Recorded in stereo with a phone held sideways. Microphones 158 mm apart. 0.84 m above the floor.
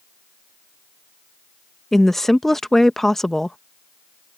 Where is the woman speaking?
Centre (ahead or behind).